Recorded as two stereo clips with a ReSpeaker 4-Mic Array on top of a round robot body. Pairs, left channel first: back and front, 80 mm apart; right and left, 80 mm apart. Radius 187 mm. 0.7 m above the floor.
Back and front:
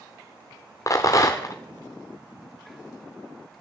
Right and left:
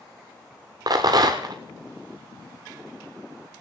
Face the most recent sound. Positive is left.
turn(degrees=130)